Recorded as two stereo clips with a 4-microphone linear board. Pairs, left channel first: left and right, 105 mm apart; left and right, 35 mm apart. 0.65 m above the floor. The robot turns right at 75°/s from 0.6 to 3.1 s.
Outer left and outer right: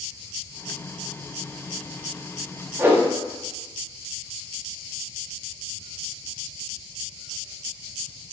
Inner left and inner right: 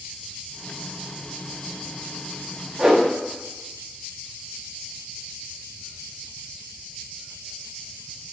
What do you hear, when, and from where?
2.8 s a whoosh: 25° right (ahead or behind), 0.7 m; by 3.0 s 15° right (ahead or behind), 0.7 m